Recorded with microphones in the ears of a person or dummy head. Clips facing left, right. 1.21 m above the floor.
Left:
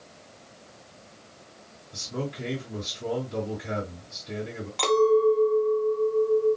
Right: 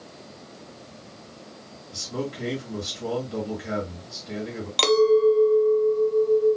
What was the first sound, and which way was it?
A man speaking, 60° right (ahead or behind).